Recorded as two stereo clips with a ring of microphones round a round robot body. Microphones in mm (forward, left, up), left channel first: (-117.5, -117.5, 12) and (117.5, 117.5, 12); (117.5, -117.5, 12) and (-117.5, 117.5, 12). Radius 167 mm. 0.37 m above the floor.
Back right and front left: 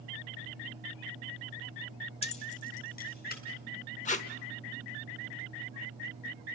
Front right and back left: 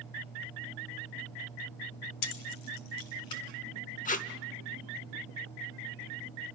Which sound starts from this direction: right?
Tape being pulled, at 4.0 s.